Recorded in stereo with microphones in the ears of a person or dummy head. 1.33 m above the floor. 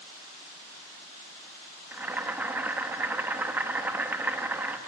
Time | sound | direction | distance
1.9 | boiling | 5° right (ahead or behind) | 1.0 m